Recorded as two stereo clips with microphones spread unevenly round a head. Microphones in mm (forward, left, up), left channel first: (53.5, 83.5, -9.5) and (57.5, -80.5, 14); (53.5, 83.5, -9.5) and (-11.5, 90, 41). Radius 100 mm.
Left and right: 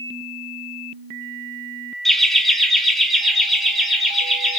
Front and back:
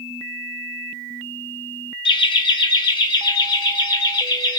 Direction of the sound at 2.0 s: Straight ahead.